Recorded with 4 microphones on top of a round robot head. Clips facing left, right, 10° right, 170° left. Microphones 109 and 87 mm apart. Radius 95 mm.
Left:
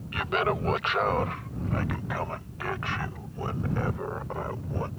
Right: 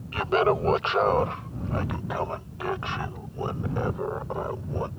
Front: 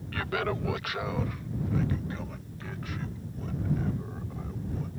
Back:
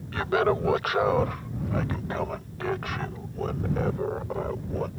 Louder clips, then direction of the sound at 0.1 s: Right 5 dB, back 7 dB; 135° right.